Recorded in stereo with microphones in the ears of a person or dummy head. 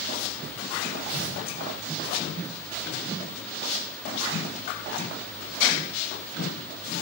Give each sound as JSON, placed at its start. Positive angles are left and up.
{"t": 1.1, "sound": "tearing paper", "side_deg": -60, "distance_m": 1.2}